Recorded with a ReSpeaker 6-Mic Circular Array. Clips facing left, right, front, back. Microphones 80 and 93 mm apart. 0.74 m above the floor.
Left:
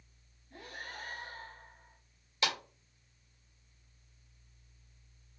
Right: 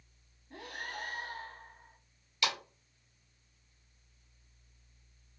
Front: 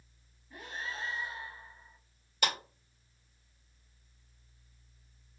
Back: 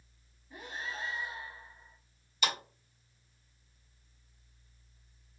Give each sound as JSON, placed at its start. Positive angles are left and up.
{"t": 0.5, "sound": "breathing", "azimuth_deg": -105, "distance_m": 0.9}
{"t": 2.4, "sound": "a clap", "azimuth_deg": 35, "distance_m": 2.5}